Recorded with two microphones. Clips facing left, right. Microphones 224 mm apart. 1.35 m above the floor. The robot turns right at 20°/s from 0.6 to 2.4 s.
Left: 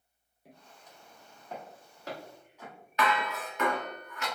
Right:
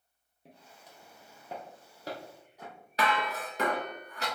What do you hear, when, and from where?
0.5 s footsteps: 25° right (ahead or behind), 1.6 m; by 3.8 s 50° right (ahead or behind), 3 m
3.0 s dishes clattering: 35° right (ahead or behind), 1.2 m